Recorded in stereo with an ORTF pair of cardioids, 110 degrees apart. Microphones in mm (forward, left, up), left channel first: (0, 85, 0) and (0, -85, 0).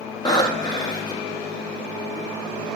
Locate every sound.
0.2 s breathing: 25° left, 2 m